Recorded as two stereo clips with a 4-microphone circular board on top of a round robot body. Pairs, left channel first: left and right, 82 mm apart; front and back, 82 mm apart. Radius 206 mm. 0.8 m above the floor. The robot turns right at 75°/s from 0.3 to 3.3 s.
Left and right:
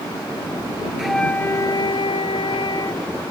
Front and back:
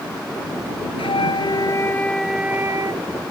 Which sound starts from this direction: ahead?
A flute, at 1.0 s.